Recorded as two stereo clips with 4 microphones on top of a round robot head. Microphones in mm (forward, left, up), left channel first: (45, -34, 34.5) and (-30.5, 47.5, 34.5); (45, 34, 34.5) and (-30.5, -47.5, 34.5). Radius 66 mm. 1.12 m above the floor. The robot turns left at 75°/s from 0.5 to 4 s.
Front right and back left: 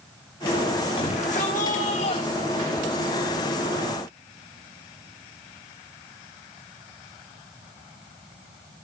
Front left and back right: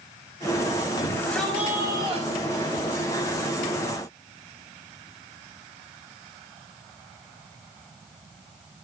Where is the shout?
5° right, 6 m; by 3.0 s 160° right, 6 m.